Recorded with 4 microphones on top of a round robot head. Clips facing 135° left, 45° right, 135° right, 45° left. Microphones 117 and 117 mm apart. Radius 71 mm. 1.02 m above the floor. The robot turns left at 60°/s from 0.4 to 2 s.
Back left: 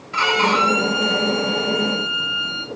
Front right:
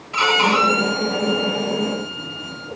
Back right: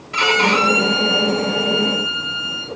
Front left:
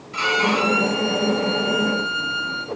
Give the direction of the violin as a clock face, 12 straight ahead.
4 o'clock.